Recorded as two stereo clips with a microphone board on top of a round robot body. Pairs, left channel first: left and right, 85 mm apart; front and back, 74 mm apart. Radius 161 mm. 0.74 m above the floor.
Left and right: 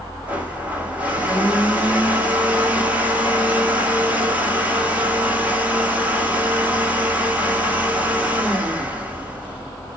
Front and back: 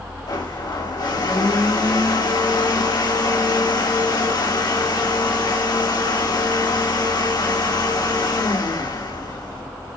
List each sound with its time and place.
0.3 s a blender: 15° right, 2.5 m